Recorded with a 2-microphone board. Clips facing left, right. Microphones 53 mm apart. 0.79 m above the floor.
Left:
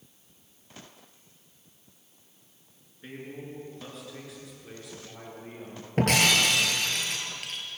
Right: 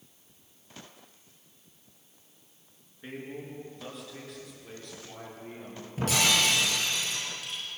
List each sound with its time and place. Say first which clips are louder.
3.0 s a man speaking: right 1 dB; 5° right (ahead or behind), 9.5 m; by 5.9 s 10° left (ahead or behind), 13 m
6.0 s breaking glass: left 3 dB; 60° left (ahead or behind), 5.5 m